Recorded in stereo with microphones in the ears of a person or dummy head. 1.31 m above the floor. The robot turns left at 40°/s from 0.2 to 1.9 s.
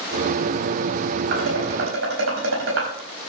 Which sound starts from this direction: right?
Dishes clattering, at 1.3 s.